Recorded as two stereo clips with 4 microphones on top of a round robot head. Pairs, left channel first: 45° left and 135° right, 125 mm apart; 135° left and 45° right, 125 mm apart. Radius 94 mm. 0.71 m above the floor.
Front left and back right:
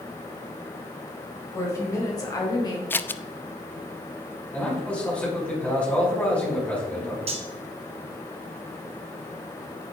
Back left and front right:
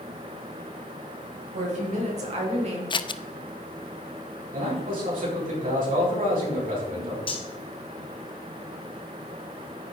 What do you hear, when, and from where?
1.5 s a woman speaking: 20° right, 4.5 m; by 2.8 s 10° right, 3.5 m
2.9 s scissors: 110° left, 0.7 m
4.5 s a man speaking: 35° right, 6 m
7.3 s cutlery clinking: 175° right, 2 m